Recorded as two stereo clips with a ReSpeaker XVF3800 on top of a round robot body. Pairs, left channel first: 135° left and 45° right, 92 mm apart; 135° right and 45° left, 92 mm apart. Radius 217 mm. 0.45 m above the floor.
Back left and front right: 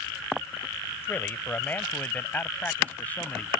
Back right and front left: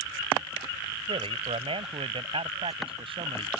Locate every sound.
1.1 s a man speaking: 65° left; by 3.5 s 60° left